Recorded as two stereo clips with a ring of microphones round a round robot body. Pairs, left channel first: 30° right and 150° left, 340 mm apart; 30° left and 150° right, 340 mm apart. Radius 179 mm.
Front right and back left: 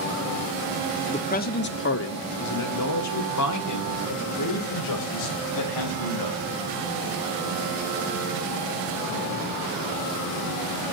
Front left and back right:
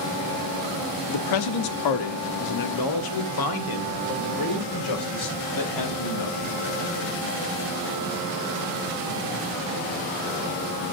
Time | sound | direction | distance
1.1 | a man speaking | 40° left | 1.1 m